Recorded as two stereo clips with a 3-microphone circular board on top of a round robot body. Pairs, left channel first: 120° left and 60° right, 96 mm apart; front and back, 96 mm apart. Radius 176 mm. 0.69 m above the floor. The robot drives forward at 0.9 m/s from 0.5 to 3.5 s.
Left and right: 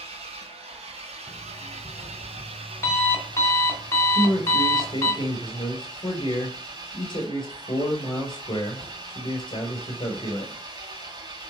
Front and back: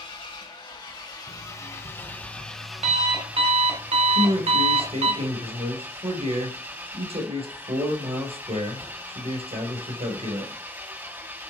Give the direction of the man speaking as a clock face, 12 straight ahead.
7 o'clock.